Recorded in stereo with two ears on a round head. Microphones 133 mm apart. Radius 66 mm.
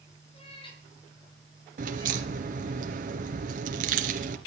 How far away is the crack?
About 2.5 m.